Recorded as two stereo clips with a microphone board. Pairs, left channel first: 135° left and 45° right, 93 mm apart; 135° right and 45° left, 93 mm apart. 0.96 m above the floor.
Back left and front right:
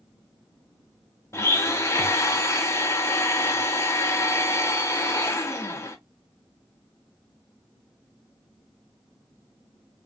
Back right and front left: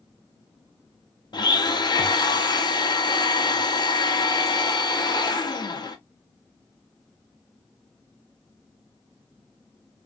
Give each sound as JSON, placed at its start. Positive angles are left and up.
{"t": 1.3, "sound": "a blender", "azimuth_deg": -165, "distance_m": 0.5}